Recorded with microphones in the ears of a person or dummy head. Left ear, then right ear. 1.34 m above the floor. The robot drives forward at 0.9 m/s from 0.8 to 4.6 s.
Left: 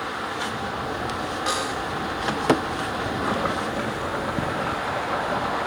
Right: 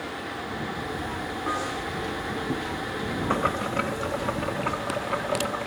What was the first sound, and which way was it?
A snare drum, 75° left (ahead or behind).